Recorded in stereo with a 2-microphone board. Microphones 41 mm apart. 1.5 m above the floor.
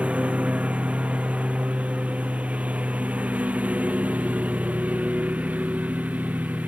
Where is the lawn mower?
35° right (ahead or behind); by 6.7 s 45° right (ahead or behind).